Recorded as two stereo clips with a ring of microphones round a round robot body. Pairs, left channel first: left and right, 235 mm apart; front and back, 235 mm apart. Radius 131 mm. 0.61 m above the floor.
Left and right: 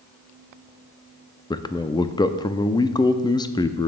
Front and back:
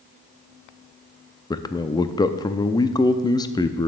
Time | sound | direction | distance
1.5 | a man speaking | 45° left | 0.6 m